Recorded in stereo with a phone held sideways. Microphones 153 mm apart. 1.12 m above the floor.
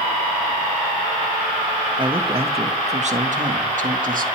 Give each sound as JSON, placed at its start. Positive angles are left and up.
{"t": 2.0, "sound": "a man speaking", "side_deg": -30, "distance_m": 1.8}